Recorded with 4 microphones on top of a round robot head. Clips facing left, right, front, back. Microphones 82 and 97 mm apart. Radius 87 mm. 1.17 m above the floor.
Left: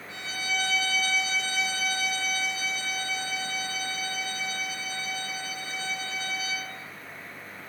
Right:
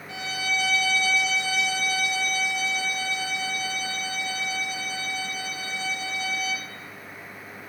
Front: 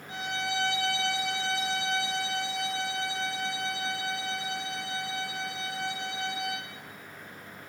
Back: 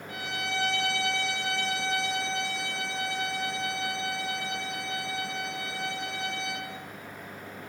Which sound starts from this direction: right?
A violin, at 0.1 s.